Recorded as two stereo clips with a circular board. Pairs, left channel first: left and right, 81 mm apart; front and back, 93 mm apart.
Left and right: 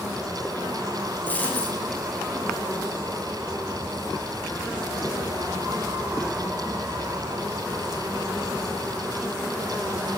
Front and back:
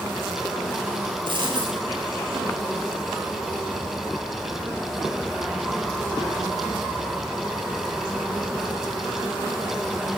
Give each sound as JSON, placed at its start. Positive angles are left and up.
{"t": 1.3, "sound": "a dropped coin", "azimuth_deg": 160, "distance_m": 6.5}